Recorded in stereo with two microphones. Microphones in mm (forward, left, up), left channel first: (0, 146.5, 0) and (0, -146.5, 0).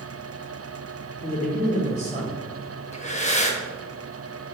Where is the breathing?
25° left (ahead or behind), 0.6 m.